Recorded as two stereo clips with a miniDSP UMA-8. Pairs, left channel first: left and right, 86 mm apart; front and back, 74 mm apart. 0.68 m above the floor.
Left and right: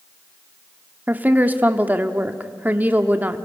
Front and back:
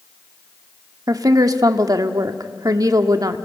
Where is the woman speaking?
155° right, 1.3 m.